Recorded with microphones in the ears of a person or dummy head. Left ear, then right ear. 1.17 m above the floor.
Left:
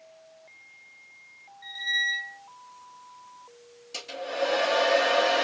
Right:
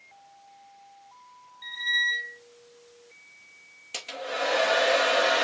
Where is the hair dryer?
45° right (ahead or behind), 0.9 m.